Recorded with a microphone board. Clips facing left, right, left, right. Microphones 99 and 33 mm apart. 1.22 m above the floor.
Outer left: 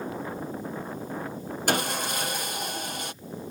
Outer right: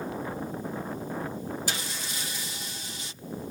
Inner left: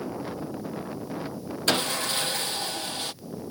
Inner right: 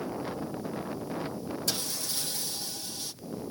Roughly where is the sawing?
Left.